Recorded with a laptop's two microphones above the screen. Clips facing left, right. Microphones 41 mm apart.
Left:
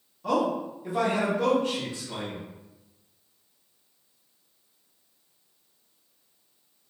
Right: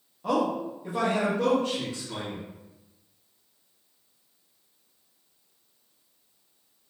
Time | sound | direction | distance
0.2 | a man speaking | 15° right (ahead or behind) | 0.9 m